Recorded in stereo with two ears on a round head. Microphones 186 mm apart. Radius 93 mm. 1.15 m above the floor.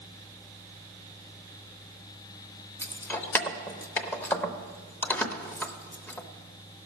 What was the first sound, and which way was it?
Keys jangling, 10° left (ahead or behind).